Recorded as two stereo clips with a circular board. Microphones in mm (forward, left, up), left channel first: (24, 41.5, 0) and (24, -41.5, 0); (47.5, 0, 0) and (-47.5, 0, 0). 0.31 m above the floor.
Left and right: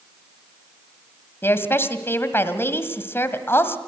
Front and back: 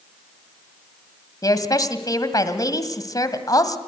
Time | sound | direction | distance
1.4 | a woman speaking | 35° left | 1.7 m